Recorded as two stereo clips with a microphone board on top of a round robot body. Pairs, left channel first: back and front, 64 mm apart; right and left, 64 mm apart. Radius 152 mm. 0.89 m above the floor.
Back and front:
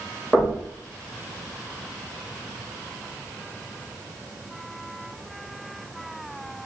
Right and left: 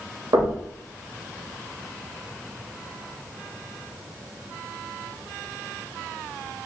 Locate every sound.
0.3 s knocking: 75° left, 2 m